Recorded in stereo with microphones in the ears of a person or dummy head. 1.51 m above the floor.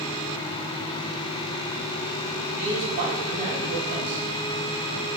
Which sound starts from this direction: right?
A man speaking, at 2.5 s.